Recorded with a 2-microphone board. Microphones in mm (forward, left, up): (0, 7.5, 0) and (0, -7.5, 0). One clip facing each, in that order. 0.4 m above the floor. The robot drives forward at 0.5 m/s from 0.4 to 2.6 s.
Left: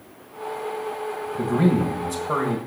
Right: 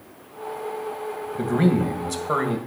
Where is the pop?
I don't hear a pop.